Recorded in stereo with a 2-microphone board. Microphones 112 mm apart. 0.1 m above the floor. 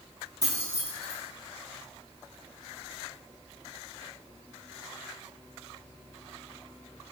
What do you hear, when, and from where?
0.4 s keys jangling: 35° right (ahead or behind), 2 m